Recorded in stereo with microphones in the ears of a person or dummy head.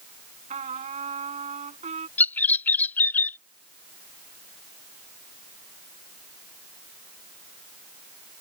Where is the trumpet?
35° right (ahead or behind).